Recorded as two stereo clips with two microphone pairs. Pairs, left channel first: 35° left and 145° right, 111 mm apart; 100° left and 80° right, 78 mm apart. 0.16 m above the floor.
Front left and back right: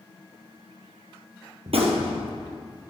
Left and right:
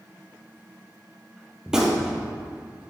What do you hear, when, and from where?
1.7 s a gunshot: 160° right, 2 m